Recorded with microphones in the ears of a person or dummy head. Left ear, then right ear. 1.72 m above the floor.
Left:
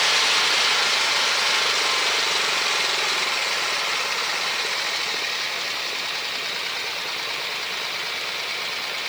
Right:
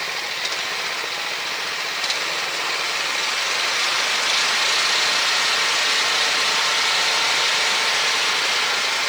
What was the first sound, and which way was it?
Only background noise.